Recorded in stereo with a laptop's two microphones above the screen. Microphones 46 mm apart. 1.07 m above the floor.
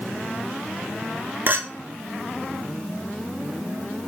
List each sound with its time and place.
1.5 s a clink: 45° right (ahead or behind), 0.5 m